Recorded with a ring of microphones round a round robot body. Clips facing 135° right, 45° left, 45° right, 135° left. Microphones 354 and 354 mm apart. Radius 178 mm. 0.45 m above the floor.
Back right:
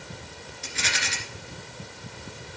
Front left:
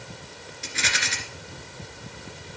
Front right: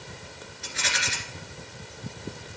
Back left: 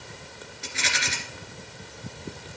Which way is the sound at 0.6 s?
75° left.